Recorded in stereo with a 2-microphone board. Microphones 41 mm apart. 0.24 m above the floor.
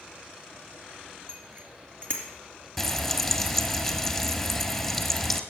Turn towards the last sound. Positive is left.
turn(degrees=5)  # may be behind; listen again after turning